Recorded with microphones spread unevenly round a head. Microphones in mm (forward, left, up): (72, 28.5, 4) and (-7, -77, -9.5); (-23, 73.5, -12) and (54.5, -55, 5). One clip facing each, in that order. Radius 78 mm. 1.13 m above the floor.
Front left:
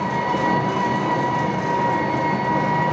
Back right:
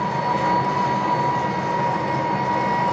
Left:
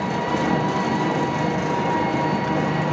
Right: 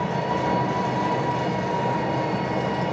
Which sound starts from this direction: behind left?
An engine running, at 0.0 s.